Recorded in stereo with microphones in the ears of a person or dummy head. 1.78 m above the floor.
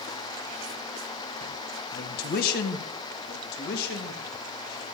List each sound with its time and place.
1.9 s a man speaking: 50° left (ahead or behind), 1.8 m
3.2 s a man speaking: 50° left (ahead or behind), 2.5 m